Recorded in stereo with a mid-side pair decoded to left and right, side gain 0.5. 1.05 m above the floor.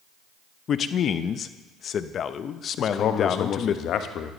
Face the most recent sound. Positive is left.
turn(degrees=65)